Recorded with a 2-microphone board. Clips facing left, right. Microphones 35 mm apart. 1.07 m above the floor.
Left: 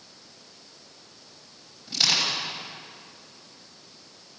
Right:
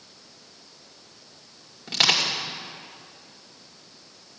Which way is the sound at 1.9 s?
60° right (ahead or behind).